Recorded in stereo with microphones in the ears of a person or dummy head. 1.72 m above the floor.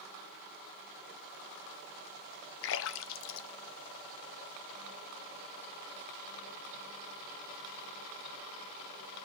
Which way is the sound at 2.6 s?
75° left (ahead or behind).